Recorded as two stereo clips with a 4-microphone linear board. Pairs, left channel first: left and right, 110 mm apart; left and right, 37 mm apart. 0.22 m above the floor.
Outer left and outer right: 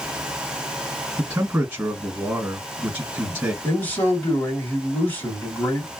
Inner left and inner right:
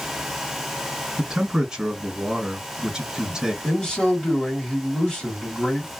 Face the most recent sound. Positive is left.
turn(degrees=15)  # may be behind; listen again after turning